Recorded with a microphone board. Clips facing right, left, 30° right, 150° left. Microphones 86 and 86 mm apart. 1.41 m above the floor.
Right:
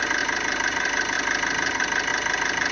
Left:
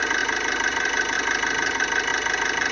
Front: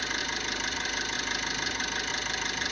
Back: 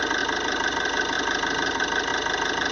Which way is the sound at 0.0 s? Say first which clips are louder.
Left 1 dB, back 9 dB; straight behind.